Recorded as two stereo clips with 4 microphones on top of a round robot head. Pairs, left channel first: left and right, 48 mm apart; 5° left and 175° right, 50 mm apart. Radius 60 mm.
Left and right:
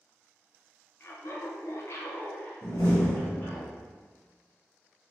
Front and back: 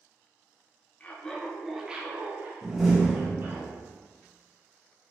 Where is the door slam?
95° left, 0.7 m.